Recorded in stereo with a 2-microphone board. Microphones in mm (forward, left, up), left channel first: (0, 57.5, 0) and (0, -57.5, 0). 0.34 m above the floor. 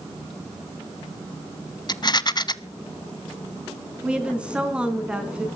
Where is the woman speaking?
10° right (ahead or behind), 3 m.